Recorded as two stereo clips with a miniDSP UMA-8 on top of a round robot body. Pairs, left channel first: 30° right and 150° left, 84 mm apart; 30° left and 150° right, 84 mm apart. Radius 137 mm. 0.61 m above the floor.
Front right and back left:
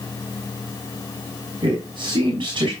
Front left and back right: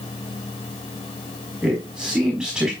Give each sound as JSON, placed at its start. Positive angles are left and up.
{"t": 1.6, "sound": "a man speaking", "azimuth_deg": 120, "distance_m": 4.0}